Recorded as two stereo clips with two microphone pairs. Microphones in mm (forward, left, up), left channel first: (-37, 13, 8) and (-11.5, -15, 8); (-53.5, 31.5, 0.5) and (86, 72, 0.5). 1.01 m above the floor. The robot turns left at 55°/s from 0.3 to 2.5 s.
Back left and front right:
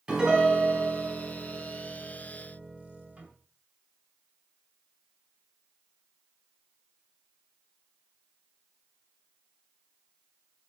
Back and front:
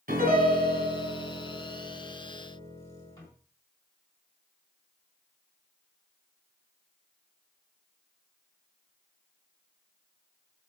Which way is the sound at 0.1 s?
25° left.